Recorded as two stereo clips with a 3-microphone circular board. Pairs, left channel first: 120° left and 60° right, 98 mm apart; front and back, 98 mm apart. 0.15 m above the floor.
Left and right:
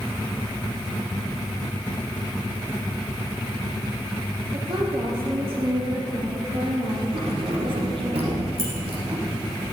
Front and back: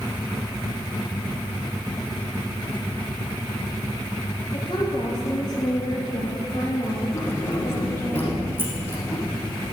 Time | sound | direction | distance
4.5 | a woman speaking | 45° right | 5 m
7.1 | keys jangling | 70° right | 5 m